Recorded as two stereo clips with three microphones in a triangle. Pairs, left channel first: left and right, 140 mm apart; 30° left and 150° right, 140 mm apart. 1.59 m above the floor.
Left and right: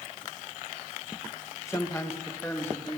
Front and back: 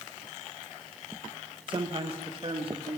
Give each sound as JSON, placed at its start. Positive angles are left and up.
{"t": 1.7, "sound": "a man speaking", "azimuth_deg": 160, "distance_m": 1.2}